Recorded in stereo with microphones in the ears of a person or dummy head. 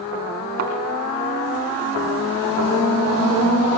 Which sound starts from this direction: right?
A thud, at 0.6 s.